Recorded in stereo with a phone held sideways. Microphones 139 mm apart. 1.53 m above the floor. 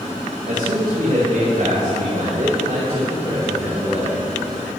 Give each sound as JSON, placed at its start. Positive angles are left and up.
{"t": 0.5, "sound": "a man speaking", "side_deg": -85, "distance_m": 2.5}